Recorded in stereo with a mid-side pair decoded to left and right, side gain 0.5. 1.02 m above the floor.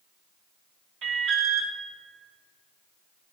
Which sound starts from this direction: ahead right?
An alarm, at 1.0 s.